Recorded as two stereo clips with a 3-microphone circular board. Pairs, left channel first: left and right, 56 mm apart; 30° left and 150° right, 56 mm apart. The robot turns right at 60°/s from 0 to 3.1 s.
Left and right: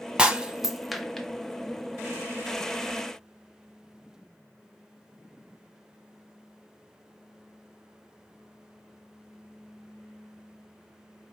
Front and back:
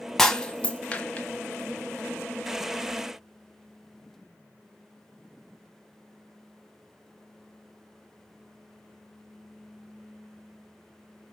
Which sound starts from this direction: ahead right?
Breaking glass, at 0.2 s.